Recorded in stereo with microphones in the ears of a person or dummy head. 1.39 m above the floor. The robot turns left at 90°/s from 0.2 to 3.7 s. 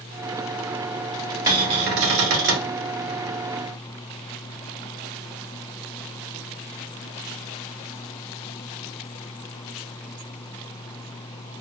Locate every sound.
1.5 s a cupboard door: 20° right, 0.7 m; by 2.7 s 130° right, 0.7 m